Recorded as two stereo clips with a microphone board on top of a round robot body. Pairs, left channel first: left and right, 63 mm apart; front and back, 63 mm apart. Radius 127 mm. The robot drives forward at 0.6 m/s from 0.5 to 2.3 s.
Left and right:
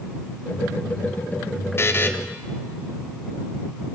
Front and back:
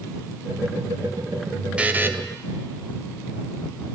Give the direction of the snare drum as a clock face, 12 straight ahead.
I don't hear a snare drum.